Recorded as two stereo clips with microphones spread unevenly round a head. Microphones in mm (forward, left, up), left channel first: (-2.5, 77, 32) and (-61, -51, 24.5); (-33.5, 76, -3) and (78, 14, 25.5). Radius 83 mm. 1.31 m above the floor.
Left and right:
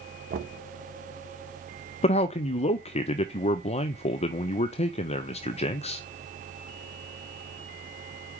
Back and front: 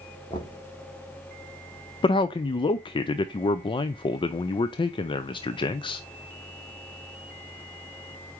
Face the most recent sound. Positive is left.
turn(degrees=110)